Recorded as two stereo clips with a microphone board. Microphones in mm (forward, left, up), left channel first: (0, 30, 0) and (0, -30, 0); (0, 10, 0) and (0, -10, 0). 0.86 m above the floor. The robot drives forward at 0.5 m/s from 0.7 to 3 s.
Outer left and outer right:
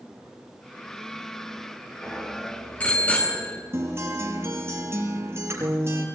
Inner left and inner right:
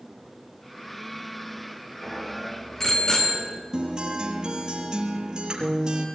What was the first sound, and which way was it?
A bicycle bell, 20° left (ahead or behind).